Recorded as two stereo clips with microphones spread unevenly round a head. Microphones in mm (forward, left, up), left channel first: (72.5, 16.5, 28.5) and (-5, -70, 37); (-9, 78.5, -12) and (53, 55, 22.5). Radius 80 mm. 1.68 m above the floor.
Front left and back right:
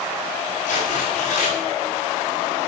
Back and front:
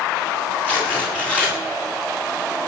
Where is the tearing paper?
85° left, 7 m.